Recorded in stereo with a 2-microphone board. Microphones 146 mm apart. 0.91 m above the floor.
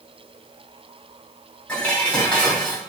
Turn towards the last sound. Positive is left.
turn(degrees=10)  # may be behind; listen again after turning